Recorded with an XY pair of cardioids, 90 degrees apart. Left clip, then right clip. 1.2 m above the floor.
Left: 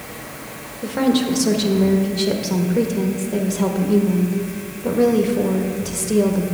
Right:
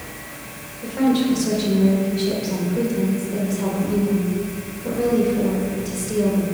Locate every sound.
0.8 s a woman speaking: 55° left, 1.2 m